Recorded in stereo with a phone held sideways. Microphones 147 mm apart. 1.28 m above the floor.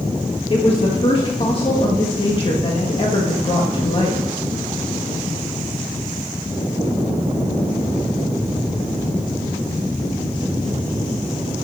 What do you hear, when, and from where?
0.5 s a woman speaking: 40° left (ahead or behind), 1.5 m